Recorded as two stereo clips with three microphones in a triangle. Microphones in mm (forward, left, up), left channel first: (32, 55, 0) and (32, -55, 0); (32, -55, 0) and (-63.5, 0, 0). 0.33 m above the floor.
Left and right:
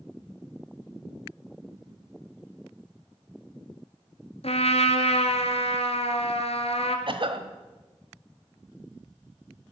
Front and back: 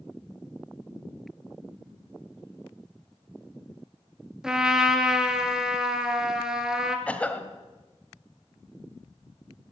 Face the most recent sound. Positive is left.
turn(degrees=-105)